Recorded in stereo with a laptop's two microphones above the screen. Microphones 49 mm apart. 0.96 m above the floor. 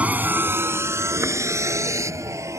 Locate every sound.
0.0 s a vehicle: 30° right (ahead or behind); by 2.6 s 85° right